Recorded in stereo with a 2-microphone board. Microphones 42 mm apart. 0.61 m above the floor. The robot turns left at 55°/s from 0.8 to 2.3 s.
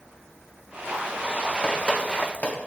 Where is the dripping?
25° left (ahead or behind), 1.2 m; by 2.6 s 35° left (ahead or behind), 1.2 m.